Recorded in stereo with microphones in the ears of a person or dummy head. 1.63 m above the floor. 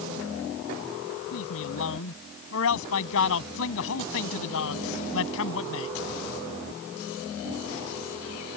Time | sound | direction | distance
1.3 | a man speaking | 75° left (ahead or behind) | ?